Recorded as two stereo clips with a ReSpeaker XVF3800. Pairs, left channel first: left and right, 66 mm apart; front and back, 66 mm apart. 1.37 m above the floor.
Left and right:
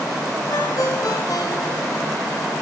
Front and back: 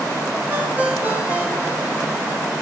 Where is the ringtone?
115° left, 5 m.